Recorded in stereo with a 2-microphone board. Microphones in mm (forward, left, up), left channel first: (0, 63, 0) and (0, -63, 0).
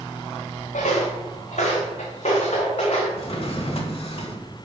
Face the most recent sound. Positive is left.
turn(degrees=50)  # may be behind; listen again after turning